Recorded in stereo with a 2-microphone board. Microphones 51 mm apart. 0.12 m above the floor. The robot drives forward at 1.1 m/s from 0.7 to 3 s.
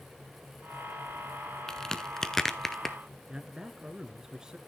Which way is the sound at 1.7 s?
10° left (ahead or behind).